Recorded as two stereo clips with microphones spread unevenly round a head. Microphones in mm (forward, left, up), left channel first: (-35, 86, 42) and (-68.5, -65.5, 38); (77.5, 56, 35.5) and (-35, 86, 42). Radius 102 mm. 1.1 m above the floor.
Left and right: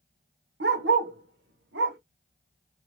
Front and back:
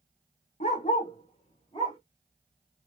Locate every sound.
0.6 s a dog barking: 70° right, 1.2 m; by 2.0 s 90° right, 1.8 m